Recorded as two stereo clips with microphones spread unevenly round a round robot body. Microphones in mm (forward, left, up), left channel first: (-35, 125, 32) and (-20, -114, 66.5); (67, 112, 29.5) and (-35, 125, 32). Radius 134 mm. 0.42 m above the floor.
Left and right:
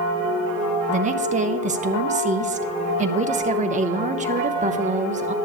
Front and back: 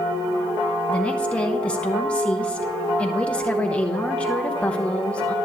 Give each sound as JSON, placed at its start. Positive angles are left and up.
{"t": 0.9, "sound": "a woman speaking", "azimuth_deg": -65, "distance_m": 0.9}